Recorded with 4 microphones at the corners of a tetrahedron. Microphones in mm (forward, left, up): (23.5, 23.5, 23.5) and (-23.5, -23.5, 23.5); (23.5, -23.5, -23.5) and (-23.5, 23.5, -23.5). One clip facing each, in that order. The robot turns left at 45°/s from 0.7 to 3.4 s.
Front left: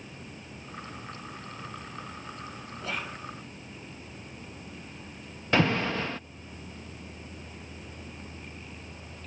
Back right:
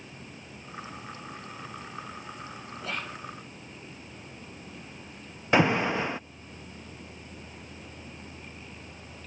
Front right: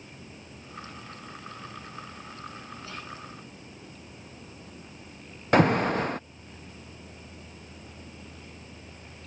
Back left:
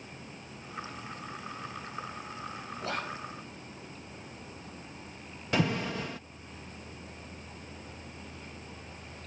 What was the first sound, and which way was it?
Whispering, 135° left.